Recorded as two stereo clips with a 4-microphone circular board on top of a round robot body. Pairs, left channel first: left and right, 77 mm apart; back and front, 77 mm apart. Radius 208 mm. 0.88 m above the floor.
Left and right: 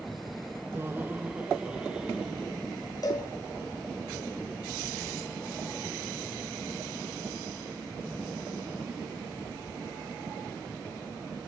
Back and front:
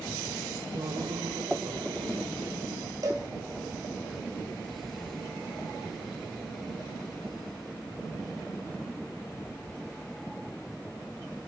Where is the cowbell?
45° left, 1.9 m.